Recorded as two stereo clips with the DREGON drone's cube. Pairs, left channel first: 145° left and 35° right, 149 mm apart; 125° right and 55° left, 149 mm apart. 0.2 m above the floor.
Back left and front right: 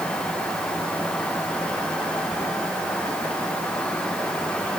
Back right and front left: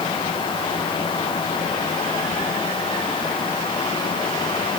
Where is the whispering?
No whispering in this recording.